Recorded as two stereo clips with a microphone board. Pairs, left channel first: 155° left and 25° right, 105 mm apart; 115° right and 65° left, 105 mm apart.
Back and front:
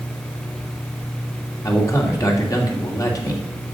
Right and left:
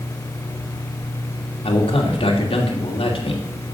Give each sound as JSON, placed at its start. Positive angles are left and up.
{"t": 1.6, "sound": "a man speaking", "azimuth_deg": -145, "distance_m": 2.5}